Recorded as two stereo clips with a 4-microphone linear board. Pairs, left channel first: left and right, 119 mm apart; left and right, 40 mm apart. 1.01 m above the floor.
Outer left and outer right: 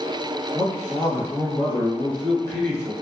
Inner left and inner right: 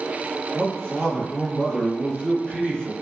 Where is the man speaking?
20° left (ahead or behind), 1.3 m.